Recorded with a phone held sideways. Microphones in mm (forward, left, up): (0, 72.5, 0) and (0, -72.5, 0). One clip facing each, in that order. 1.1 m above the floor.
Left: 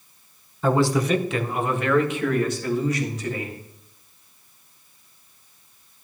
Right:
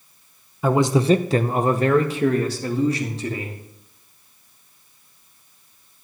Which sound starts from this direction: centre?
A man speaking, at 0.6 s.